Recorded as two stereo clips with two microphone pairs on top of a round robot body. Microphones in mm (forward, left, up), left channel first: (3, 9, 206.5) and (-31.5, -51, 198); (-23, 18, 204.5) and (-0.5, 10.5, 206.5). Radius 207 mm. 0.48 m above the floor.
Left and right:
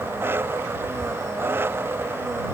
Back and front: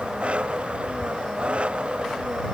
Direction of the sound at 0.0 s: 60° right.